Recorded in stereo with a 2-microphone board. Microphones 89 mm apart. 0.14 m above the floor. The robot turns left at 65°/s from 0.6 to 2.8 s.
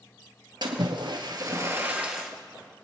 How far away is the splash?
About 1.9 m.